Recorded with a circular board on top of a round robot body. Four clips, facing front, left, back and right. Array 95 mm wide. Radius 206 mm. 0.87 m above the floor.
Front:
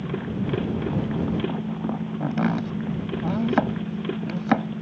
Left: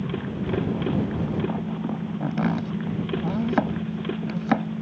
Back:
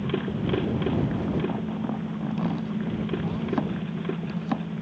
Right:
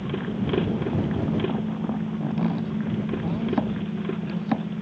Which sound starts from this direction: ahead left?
Chopping, at 2.2 s.